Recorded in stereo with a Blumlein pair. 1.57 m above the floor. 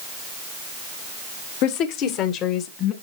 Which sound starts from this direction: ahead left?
A woman speaking, at 1.6 s.